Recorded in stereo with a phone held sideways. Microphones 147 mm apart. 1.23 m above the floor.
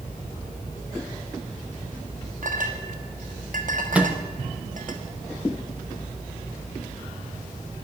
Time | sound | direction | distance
2.4 | a clink | 65° right (ahead or behind) | 1.3 m
3.9 | a microwave | 10° right (ahead or behind) | 0.8 m